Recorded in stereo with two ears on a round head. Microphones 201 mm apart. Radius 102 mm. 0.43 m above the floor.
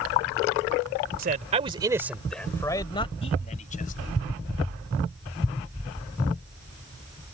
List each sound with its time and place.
1.2 s a man speaking: 40° right (ahead or behind); by 4.0 s 35° left (ahead or behind)